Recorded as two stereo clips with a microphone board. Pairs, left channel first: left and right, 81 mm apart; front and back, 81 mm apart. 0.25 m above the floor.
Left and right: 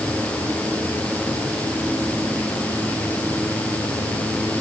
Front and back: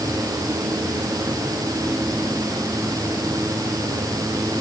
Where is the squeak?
No squeak in this recording.